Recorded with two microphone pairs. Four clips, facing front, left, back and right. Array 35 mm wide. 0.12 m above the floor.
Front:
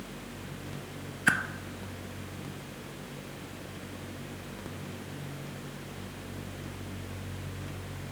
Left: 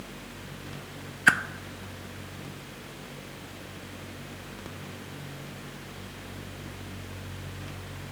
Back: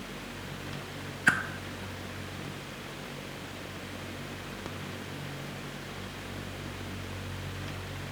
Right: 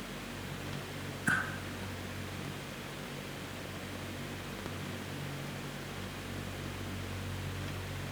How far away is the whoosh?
About 0.5 m.